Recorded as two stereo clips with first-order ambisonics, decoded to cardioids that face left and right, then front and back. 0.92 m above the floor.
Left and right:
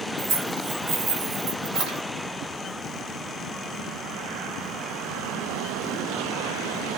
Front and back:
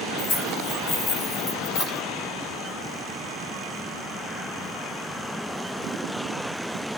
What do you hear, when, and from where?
0.2 s keys jangling: 40° right, 2 m